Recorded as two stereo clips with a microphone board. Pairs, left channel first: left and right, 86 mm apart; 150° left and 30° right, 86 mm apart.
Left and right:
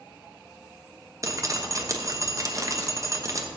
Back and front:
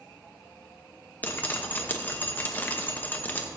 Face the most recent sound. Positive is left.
turn(degrees=-140)